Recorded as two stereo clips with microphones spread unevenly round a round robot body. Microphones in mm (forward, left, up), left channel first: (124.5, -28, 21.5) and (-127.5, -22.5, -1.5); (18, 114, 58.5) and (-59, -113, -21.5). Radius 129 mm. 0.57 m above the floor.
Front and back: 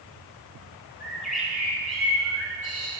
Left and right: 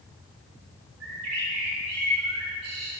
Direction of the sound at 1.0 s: 90° right.